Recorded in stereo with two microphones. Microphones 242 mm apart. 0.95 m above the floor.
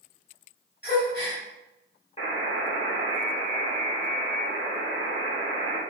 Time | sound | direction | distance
0.8 | a gasp | 45° left (ahead or behind) | 1.4 m
2.2 | a buzzer | 25° left (ahead or behind) | 1.4 m